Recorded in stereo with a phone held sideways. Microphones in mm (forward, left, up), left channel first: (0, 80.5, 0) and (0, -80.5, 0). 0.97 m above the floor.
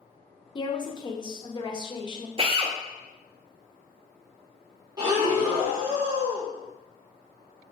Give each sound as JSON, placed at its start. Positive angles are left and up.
{"t": 0.6, "sound": "a woman speaking", "side_deg": 30, "distance_m": 0.5}
{"t": 2.4, "sound": "a drill", "side_deg": -35, "distance_m": 0.5}
{"t": 5.0, "sound": "breathing", "side_deg": -25, "distance_m": 1.7}